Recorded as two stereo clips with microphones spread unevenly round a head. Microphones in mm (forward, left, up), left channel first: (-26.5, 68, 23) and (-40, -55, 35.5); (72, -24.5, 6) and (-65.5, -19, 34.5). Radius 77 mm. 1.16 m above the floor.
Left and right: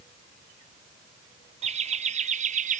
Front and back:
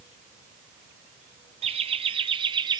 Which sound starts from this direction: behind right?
Laughter, at 1.6 s.